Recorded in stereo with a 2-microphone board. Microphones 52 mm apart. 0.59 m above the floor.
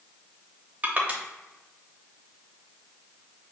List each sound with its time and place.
0.8 s crushing: 30° right (ahead or behind), 0.8 m